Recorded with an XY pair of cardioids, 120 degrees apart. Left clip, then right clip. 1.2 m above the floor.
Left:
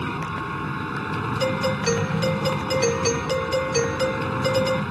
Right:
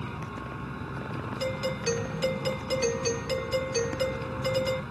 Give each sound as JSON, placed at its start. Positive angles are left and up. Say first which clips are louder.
{"t": 0.0, "sound": "a machine running", "louder": "left 10 dB", "azimuth_deg": 55}
{"t": 1.4, "sound": "a doorbell", "louder": "left 6 dB", "azimuth_deg": 35}